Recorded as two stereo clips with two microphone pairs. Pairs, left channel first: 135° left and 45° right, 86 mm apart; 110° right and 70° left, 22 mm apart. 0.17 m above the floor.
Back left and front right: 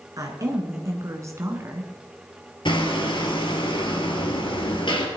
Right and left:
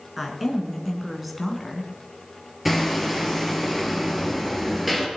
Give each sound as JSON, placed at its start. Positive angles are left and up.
{"t": 0.2, "sound": "a woman speaking", "azimuth_deg": -10, "distance_m": 2.5}
{"t": 2.6, "sound": "hammering", "azimuth_deg": 155, "distance_m": 2.5}